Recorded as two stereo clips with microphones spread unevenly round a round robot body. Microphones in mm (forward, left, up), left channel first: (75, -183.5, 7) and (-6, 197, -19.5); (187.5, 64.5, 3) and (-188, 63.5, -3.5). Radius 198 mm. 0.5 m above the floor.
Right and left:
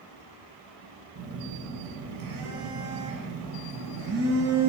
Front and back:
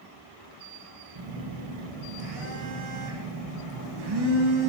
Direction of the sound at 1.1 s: 160° left.